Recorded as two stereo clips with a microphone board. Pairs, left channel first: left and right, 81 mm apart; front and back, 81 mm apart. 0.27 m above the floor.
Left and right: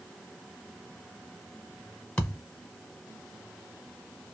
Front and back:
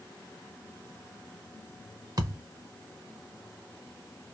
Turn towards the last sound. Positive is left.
turn(degrees=160)